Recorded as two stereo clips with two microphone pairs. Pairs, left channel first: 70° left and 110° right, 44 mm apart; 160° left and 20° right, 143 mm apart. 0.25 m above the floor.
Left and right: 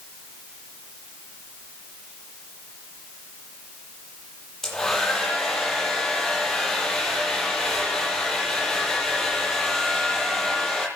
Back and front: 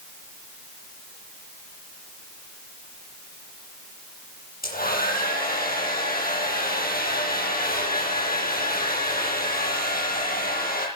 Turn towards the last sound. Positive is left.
turn(degrees=150)